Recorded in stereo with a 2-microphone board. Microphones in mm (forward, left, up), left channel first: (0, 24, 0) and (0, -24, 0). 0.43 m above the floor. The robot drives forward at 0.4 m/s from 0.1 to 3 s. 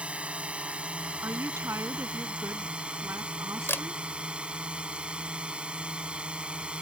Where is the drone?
25° right (ahead or behind).